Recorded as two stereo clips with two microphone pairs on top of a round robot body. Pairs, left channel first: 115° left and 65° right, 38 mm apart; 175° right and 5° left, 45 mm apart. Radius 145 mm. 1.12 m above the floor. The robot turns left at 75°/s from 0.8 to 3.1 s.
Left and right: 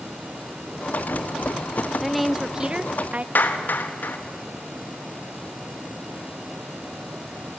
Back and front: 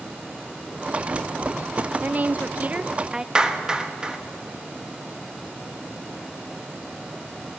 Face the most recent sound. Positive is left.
turn(degrees=80)